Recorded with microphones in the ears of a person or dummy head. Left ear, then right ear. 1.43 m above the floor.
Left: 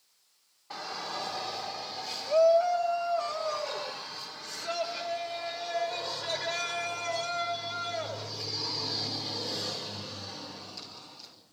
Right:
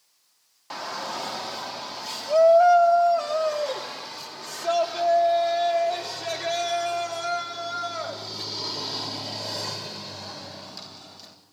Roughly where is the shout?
Right.